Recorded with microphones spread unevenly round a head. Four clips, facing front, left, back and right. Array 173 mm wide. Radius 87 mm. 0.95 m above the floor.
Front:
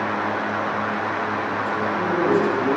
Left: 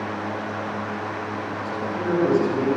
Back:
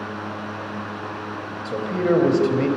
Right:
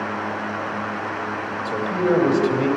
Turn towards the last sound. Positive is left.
turn(degrees=-145)